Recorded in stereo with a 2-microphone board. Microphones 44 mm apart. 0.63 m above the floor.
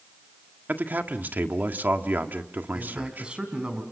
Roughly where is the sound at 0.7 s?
Right.